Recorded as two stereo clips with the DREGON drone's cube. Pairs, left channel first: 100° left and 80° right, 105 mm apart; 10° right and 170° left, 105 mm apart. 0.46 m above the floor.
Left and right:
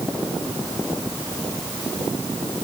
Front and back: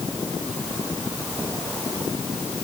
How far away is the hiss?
No hiss in this recording.